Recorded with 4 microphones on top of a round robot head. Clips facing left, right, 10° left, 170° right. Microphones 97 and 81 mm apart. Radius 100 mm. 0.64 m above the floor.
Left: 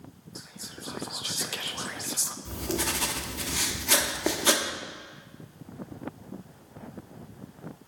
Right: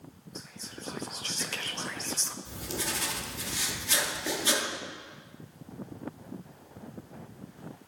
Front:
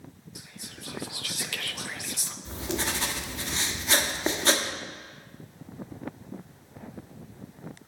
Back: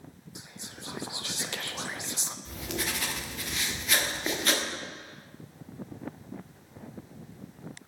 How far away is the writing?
About 1.0 m.